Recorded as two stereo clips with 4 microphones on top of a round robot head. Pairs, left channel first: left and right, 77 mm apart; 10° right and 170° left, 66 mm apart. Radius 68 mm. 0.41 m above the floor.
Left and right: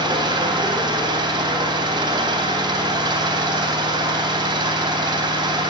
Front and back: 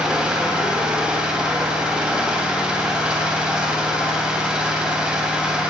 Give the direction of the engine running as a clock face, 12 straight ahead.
4 o'clock.